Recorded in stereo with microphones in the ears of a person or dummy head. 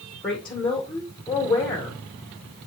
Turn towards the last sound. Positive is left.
turn(degrees=5)  # may be behind; listen again after turning